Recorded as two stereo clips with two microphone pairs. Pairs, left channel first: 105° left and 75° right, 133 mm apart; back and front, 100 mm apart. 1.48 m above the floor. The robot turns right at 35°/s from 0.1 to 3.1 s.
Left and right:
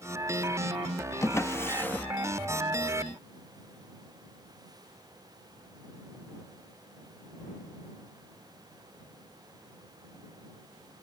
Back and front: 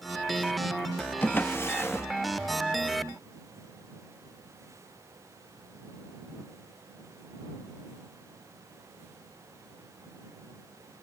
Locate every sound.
1.2 s a drawer: 140° left; by 2.1 s 170° left